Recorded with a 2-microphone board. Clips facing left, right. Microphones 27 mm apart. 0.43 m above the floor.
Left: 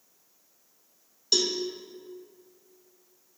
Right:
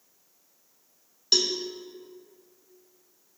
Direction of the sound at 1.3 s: 25° right (ahead or behind).